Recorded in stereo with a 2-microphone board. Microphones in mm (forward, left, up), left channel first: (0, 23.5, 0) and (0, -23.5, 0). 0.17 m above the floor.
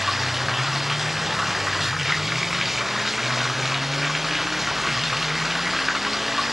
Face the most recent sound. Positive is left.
turn(degrees=-5)  # may be behind; listen again after turning